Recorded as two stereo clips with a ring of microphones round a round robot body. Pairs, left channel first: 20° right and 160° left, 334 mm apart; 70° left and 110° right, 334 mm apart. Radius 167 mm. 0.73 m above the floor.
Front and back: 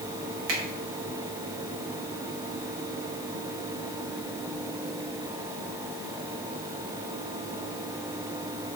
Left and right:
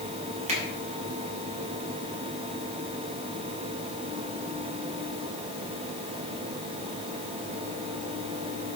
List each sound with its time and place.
0.5 s a finger snap: 175° left, 3.5 m